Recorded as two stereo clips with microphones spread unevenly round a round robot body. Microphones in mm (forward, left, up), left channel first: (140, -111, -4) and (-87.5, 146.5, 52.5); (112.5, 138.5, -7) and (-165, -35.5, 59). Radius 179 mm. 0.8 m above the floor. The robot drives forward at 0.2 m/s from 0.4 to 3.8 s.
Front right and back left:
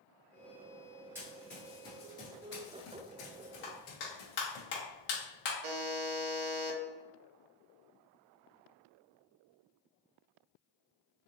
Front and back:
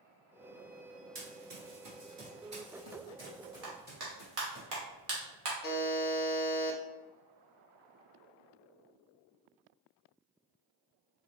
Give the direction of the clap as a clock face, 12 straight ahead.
3 o'clock.